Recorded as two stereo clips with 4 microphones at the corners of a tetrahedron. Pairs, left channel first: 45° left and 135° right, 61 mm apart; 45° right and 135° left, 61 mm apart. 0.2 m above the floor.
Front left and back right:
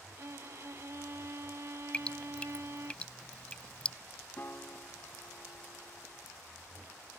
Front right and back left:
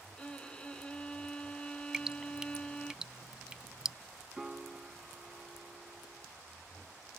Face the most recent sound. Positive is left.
turn(degrees=60)